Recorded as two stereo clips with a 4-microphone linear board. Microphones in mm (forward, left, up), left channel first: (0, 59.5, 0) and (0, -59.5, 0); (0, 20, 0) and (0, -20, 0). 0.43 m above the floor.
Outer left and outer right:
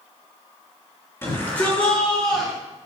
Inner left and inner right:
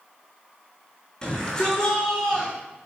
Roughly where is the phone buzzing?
No phone buzzing in this recording.